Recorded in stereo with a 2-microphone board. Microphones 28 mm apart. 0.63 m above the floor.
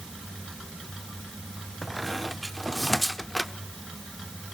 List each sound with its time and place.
1.8 s a squeak: centre (ahead or behind), 0.7 m